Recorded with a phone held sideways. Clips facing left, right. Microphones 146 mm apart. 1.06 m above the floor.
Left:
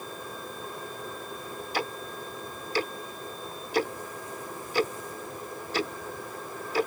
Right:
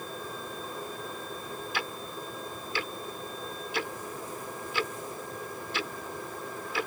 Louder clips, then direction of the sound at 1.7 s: Left 7 dB; 40° left (ahead or behind).